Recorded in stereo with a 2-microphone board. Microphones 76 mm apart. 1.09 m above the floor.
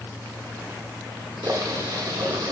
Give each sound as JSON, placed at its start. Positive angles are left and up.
{"t": 1.4, "sound": "boiling", "side_deg": -65, "distance_m": 1.1}